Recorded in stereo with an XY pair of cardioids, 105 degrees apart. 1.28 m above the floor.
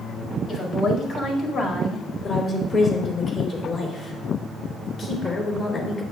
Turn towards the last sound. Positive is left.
turn(degrees=45)